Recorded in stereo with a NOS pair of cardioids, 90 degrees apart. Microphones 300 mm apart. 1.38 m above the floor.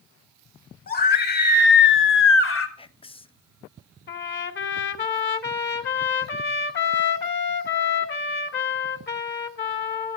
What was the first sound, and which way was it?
A scream, 30° left.